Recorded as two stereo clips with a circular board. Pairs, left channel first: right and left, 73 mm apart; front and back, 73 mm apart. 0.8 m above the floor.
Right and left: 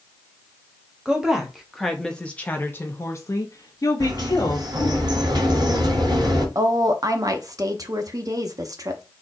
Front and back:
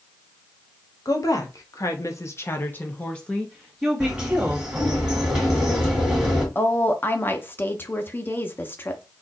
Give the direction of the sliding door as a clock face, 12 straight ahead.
9 o'clock.